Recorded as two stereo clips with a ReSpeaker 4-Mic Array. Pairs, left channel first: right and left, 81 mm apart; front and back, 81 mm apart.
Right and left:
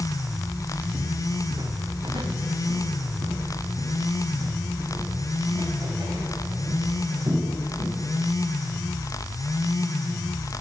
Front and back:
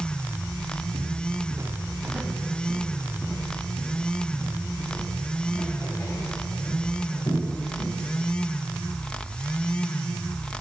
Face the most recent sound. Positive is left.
turn(degrees=50)